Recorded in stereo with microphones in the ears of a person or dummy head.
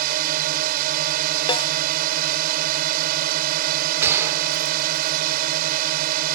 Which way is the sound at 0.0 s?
50° right (ahead or behind).